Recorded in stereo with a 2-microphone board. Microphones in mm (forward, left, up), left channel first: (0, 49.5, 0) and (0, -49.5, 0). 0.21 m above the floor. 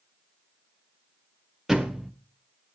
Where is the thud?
5° right (ahead or behind), 1.2 m.